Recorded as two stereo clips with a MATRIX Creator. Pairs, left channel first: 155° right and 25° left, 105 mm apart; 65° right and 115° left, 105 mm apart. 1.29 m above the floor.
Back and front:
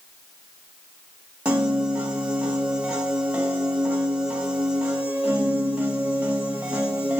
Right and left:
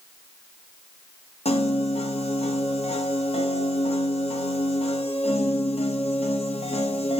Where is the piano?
55° right, 0.7 m.